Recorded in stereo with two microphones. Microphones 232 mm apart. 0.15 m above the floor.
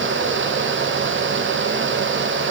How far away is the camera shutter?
No camera shutter in this recording.